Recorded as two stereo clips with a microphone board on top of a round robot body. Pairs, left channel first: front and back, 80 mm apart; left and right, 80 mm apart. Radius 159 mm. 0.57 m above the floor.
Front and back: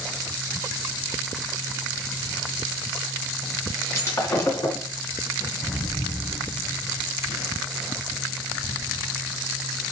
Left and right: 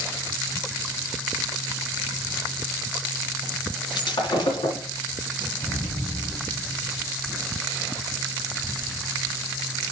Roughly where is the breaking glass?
Ahead left.